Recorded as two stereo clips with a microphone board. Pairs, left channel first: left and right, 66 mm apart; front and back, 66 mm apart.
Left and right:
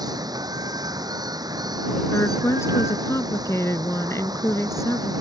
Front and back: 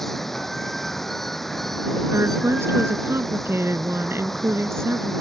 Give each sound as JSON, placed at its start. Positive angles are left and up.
{"t": 0.0, "sound": "running water", "azimuth_deg": -85}
{"t": 2.1, "sound": "a woman speaking", "azimuth_deg": 130}